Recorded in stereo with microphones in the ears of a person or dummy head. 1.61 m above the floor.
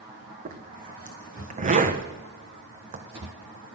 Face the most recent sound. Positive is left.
turn(degrees=-35)  # may be behind; listen again after turning